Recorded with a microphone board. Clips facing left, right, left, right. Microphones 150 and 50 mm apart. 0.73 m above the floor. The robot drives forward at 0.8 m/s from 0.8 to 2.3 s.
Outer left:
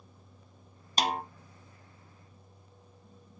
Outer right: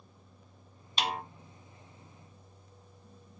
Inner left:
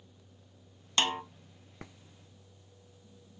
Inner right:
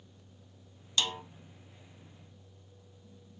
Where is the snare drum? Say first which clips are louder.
Outer left 4 dB, inner left 4 dB; 40° left (ahead or behind), 0.7 m.